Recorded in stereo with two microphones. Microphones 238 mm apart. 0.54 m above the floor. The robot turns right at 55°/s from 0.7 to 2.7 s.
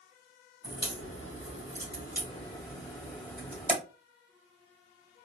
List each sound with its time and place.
0.6 s a crack: 55° left (ahead or behind), 1.9 m; by 3.7 s 10° left (ahead or behind), 1.9 m